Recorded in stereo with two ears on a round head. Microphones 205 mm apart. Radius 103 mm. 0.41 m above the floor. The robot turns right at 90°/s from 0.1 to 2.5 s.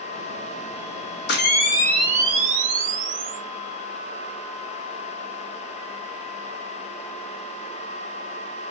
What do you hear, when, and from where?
1.3 s a camera shutter: 115° left, 0.5 m; by 3.4 s 135° right, 0.5 m